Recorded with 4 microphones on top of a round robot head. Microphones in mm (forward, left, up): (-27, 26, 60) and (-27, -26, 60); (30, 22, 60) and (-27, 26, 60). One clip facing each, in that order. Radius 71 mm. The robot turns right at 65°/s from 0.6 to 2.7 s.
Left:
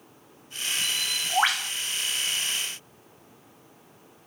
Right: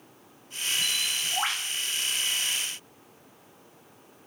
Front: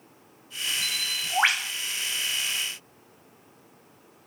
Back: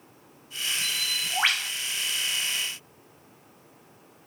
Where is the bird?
25° left, 1.0 m; by 1.7 s 85° left, 1.0 m.